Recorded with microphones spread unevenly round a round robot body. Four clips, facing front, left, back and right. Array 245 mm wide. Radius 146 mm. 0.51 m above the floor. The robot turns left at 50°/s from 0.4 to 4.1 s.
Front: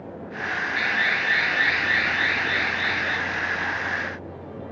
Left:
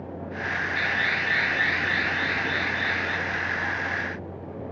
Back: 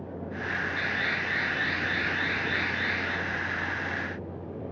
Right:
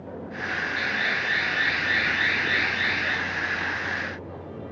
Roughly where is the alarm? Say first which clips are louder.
Left 1 dB, front 6 dB; ahead left.